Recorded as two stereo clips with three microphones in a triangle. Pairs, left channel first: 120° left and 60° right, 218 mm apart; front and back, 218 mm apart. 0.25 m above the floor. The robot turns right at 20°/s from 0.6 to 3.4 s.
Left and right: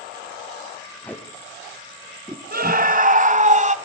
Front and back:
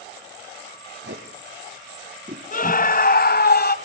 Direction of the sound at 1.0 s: 160° right.